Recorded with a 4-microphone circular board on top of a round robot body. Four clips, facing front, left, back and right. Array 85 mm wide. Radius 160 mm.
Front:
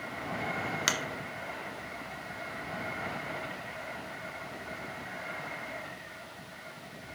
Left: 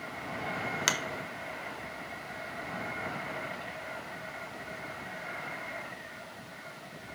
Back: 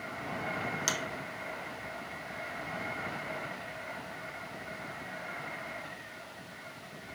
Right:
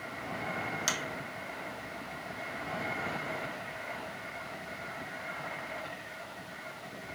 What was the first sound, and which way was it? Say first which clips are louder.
A finger snap: left 5 dB, front 4 dB; 50° left.